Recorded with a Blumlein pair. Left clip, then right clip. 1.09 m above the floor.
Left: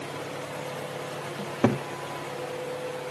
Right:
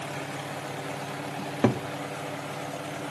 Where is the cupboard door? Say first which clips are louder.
Left 1 dB; 5° left, 1.0 m.